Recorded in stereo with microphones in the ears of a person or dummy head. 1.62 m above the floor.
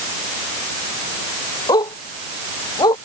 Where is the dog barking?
20° left (ahead or behind).